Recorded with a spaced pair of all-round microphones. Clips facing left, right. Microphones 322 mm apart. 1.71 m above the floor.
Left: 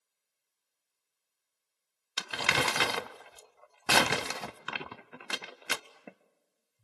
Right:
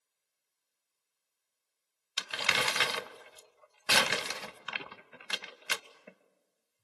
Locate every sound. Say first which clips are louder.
2.2 s crumpling: left 4 dB; 65° left (ahead or behind), 0.6 m